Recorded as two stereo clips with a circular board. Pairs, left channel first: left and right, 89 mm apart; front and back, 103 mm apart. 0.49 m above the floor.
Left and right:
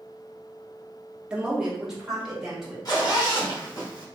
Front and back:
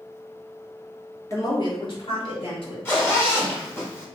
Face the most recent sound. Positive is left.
turn(degrees=60)